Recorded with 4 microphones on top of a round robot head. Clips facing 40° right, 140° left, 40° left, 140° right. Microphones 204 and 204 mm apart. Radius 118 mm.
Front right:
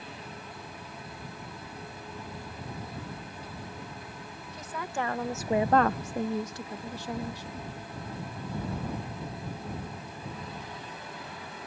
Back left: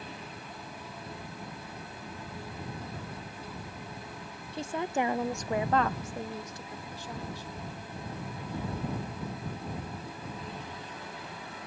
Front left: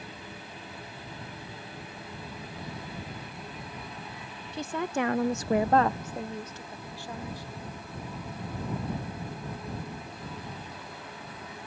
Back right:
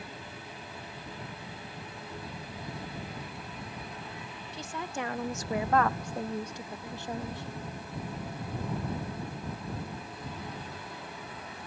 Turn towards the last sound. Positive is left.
turn(degrees=-75)